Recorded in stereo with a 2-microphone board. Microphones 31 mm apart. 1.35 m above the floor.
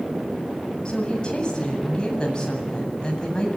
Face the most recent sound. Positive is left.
turn(degrees=30)  # may be behind; listen again after turning